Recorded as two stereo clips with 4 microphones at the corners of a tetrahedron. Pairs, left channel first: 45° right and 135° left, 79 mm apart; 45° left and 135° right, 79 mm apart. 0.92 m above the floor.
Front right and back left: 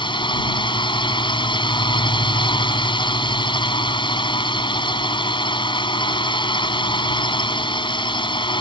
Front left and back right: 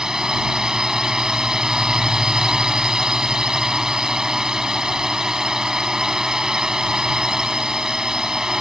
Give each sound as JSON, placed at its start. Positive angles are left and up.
{"t": 0.0, "sound": "a drone", "azimuth_deg": -55}